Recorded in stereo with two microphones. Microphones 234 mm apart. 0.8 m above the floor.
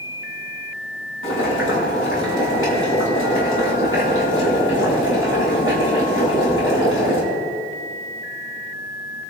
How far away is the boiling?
About 7.5 m.